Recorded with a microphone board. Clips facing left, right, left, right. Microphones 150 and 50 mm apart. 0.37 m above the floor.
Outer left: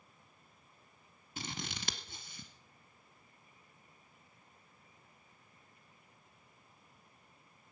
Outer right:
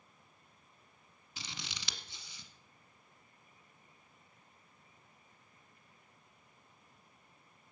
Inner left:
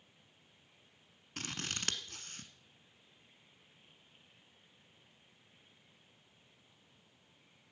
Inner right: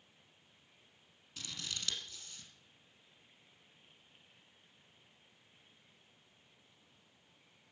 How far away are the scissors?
About 1.3 m.